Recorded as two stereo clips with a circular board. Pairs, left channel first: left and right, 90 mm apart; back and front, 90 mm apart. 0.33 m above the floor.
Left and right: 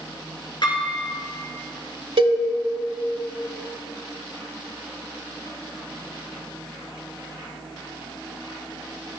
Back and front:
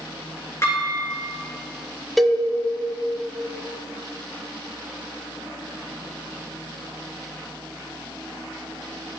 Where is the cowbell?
90° right, 0.7 m.